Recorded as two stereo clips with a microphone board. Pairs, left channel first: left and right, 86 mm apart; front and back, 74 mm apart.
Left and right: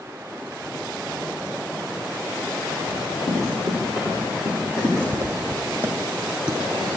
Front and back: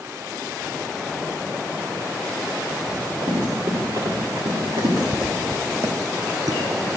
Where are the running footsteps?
140° left, 5.5 m; by 5.0 s 130° left, 5 m.